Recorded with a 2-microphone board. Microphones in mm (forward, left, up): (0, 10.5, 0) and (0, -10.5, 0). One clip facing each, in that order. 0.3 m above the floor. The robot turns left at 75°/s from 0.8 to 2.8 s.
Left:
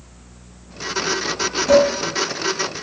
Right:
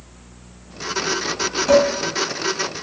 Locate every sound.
1.7 s dishes clattering: 25° right (ahead or behind), 1.0 m; by 1.9 s 35° right (ahead or behind), 1.0 m